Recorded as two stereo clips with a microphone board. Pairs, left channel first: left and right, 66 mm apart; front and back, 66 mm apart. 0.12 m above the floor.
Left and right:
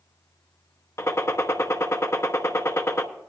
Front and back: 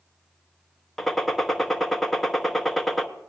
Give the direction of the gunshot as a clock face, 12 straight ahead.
9 o'clock.